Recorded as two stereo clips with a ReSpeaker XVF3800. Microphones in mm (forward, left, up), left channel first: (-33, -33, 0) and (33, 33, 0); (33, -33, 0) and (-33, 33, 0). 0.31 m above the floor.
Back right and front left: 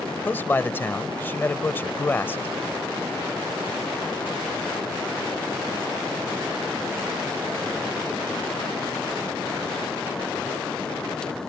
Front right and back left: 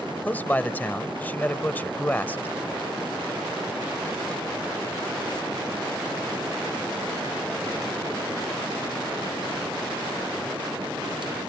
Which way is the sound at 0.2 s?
95° right.